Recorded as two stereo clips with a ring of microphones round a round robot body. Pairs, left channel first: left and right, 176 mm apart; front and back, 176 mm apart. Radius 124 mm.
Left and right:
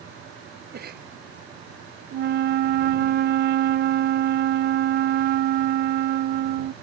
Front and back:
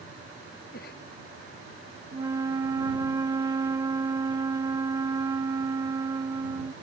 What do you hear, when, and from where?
0.7 s a cough: 55° right
2.1 s a flute: 110° right